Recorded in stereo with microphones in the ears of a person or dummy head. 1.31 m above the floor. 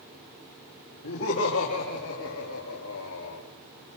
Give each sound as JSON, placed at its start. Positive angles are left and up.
{"t": 1.0, "sound": "laughter", "side_deg": 75, "distance_m": 2.5}